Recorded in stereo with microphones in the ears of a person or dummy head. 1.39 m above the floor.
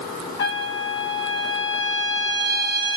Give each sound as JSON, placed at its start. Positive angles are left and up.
{"t": 0.4, "sound": "a trumpet", "side_deg": 25, "distance_m": 1.5}